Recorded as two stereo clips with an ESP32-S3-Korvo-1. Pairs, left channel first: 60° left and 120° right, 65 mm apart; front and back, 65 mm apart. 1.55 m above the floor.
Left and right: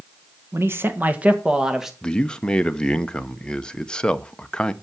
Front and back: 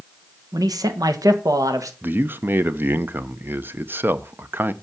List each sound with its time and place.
0.5 s a man speaking: 165° right, 1.4 m; by 1.9 s 155° left, 1.8 m
2.0 s a man speaking: 135° left, 0.7 m